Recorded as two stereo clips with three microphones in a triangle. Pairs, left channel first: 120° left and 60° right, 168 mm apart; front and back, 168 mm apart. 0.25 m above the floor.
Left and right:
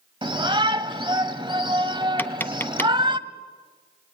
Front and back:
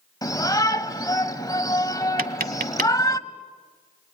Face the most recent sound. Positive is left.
turn(degrees=-165)